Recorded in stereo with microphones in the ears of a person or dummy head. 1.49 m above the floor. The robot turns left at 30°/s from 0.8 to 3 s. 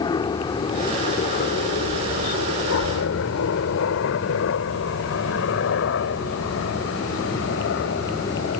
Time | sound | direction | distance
0.0 | a helicopter | 25° left (ahead or behind) | ?